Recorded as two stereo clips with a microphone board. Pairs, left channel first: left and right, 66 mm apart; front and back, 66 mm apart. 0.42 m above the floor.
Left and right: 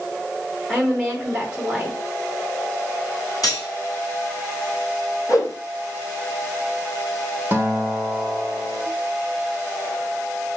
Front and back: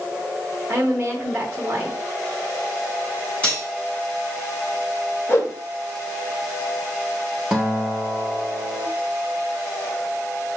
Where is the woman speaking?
155° right, 0.9 m.